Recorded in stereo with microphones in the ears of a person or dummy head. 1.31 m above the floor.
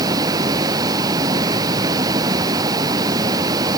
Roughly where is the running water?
Right.